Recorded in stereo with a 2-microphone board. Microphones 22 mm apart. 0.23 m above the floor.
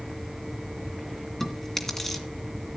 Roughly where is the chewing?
Centre.